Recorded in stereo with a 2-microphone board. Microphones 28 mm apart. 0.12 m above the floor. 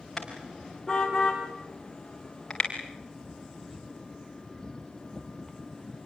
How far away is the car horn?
About 6 m.